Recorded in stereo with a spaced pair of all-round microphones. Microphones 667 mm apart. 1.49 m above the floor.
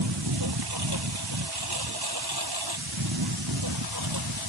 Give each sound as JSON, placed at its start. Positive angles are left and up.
{"t": 0.0, "sound": "a lawn mower", "side_deg": -35}